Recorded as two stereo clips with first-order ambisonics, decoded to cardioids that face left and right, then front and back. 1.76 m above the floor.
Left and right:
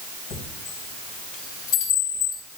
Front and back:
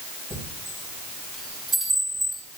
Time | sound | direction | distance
0.3 | a chime | 105° left | 3.5 m